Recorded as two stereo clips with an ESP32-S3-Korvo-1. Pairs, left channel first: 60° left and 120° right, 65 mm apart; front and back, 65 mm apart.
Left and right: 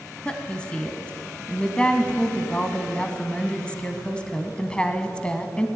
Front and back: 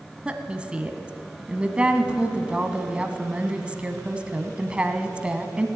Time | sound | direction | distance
0.2 | a woman speaking | 120° left | 1.2 m